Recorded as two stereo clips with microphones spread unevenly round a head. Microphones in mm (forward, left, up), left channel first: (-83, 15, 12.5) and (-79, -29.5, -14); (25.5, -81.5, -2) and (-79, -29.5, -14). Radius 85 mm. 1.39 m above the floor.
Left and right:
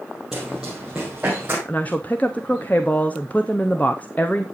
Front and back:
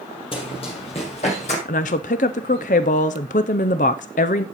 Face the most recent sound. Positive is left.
turn(degrees=5)